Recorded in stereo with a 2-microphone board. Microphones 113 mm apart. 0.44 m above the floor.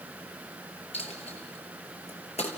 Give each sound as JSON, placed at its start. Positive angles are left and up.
{"t": 0.9, "sound": "a dropped coin", "side_deg": 70, "distance_m": 3.5}